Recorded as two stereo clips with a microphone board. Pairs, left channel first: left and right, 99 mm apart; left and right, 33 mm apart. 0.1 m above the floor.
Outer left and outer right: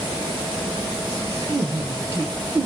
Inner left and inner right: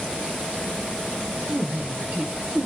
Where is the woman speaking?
25° right (ahead or behind), 1.7 m.